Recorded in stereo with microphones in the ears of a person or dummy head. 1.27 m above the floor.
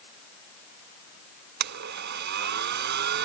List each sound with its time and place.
1.6 s a blender: 60° right (ahead or behind)